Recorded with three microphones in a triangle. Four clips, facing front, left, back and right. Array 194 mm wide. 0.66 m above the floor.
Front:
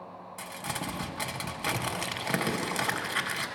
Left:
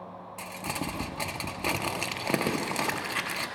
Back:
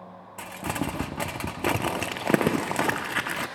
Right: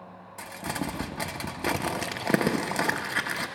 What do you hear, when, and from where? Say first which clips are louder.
0.4 s crumpling: right 2 dB, back 7 dB; 160° right, 0.5 m